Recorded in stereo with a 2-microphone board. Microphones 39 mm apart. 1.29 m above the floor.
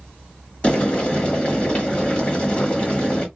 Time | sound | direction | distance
0.6 | boiling | 30° left (ahead or behind) | 1.6 m